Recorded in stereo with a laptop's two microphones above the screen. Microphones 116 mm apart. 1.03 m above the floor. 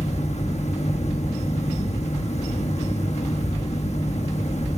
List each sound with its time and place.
0.0 s a fan: 75° left (ahead or behind), 1.2 m